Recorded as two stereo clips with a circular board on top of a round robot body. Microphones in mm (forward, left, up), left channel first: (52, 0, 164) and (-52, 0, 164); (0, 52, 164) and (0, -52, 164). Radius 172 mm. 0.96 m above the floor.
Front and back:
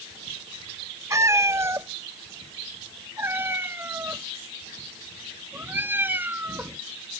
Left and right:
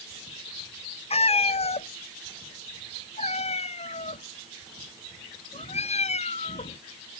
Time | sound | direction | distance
1.1 | a cat meowing | 115° left | ?